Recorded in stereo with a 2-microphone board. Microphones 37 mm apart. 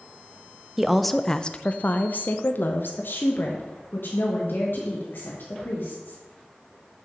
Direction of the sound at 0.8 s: 5° right (ahead or behind).